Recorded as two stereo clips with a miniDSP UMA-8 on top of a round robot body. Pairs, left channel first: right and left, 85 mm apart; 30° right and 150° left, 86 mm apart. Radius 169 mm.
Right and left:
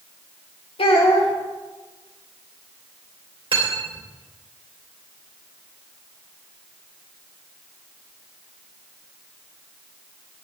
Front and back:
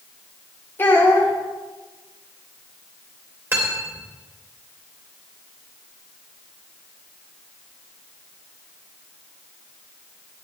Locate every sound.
0.8 s a child speaking: 95° right, 3.5 m
3.5 s cutlery clinking: 90° left, 3 m